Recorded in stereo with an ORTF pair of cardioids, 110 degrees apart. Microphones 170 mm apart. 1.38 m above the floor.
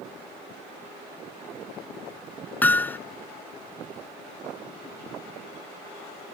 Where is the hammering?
10° left.